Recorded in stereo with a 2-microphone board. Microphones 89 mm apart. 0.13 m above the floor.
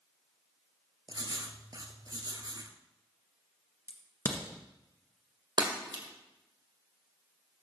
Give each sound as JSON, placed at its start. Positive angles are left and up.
{"t": 1.1, "sound": "writing", "side_deg": -50, "distance_m": 1.1}
{"t": 3.9, "sound": "a crack", "side_deg": 30, "distance_m": 1.5}
{"t": 5.6, "sound": "breaking glass", "side_deg": -55, "distance_m": 2.0}